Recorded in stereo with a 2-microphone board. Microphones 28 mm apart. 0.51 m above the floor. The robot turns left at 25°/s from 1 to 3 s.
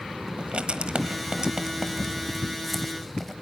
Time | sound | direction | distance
0.4 | writing | 40° right (ahead or behind) | 1.1 m